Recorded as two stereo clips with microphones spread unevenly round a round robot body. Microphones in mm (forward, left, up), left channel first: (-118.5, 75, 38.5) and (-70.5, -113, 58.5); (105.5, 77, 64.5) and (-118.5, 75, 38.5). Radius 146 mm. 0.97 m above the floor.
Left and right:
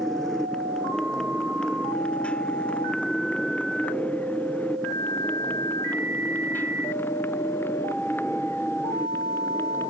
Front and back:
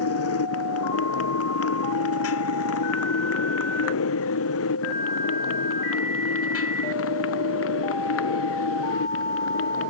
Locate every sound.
0.0 s a motorcycle: 15° left; by 9.9 s 20° left